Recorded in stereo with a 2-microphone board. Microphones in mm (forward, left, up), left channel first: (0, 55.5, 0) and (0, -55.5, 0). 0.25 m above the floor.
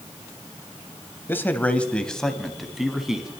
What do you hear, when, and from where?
1.3 s a man speaking: 20° left (ahead or behind), 0.9 m; by 3.3 s 5° right (ahead or behind), 1.7 m